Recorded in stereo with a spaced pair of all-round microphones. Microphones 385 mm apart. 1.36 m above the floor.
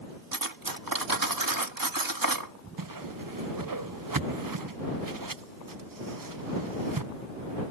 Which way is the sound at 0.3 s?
65° right (ahead or behind).